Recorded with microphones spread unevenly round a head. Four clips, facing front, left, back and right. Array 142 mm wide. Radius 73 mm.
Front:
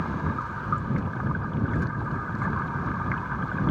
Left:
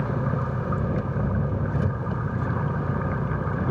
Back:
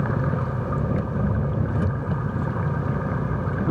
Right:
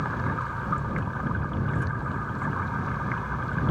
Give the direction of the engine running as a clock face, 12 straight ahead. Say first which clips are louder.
Left 2 dB, back 4 dB; 7 o'clock.